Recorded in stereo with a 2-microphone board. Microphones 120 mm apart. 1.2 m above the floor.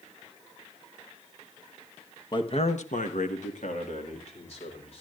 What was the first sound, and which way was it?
A man speaking, 35° left (ahead or behind).